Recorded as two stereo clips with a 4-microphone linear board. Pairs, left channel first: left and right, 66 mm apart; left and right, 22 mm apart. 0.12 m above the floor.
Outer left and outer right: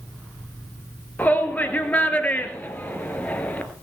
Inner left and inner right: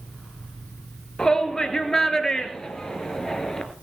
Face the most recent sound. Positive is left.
turn(degrees=25)  # may be behind; listen again after turning